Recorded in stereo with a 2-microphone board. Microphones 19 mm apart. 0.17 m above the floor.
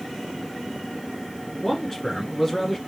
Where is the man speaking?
15° left (ahead or behind), 1.8 m.